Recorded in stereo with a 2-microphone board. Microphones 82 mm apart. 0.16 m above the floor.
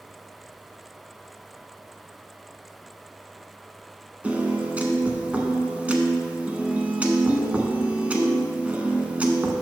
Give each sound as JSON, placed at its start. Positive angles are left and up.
{"t": 4.2, "sound": "a piano", "side_deg": -20, "distance_m": 1.0}